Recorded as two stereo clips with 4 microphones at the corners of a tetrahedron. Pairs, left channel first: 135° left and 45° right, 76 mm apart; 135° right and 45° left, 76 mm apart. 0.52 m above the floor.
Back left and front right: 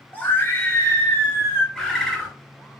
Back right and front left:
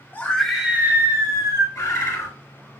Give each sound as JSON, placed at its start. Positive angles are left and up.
{"t": 0.1, "sound": "a scream", "azimuth_deg": -175, "distance_m": 0.9}
{"t": 1.8, "sound": "a bird", "azimuth_deg": -145, "distance_m": 1.6}